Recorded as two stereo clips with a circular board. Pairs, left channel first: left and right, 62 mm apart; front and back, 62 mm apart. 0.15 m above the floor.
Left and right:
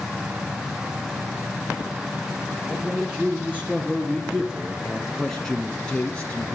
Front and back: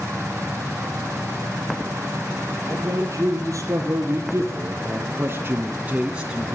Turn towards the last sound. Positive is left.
turn(degrees=105)